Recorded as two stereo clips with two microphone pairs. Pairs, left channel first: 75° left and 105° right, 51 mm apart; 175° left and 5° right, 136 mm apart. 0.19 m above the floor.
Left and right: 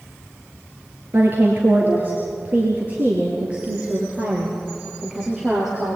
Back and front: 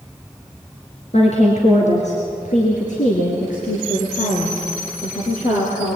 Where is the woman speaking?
150° right, 4 m; by 6.0 s 175° left, 5.5 m.